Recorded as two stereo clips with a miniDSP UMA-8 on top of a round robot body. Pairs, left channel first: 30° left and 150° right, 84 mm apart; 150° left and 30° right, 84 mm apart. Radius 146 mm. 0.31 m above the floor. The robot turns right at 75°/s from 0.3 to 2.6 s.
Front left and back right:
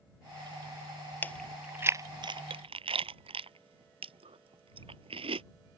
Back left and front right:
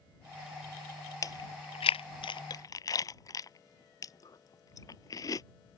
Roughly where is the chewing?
Left.